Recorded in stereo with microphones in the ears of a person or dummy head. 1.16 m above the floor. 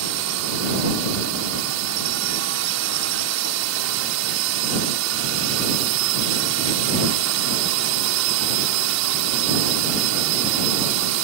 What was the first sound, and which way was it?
A drone, 80° right.